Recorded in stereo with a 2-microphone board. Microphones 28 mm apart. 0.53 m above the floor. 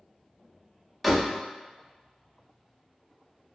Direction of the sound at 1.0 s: 5° left (ahead or behind).